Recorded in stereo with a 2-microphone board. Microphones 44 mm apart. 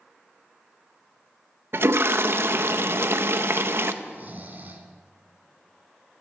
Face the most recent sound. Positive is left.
turn(degrees=-45)  # may be behind; listen again after turning